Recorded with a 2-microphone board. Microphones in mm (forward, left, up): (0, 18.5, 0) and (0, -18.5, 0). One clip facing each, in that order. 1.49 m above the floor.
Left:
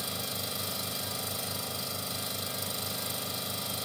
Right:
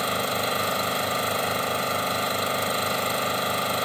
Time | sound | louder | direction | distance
0.0 | an engine running | right 12 dB | 55° right (ahead or behind) | ?